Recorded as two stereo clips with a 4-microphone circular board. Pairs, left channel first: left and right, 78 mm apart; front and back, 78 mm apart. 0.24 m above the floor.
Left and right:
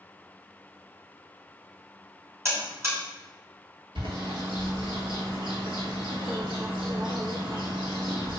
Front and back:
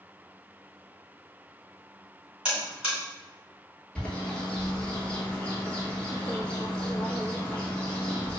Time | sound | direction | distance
2.5 | a buzzer | 105° right | 1.9 m
4.0 | a bird | 75° right | 1.1 m